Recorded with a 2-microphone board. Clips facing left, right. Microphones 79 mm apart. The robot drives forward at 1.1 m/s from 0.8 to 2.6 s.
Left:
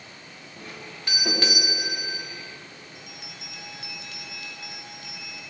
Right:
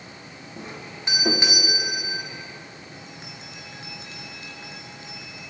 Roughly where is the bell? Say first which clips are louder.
Right 3 dB; right.